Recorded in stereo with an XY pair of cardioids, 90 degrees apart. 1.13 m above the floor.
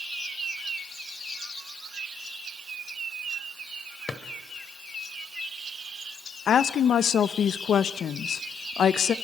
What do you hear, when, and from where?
4.1 s a drawer: 35° left, 2 m
6.5 s a woman speaking: 65° left, 0.9 m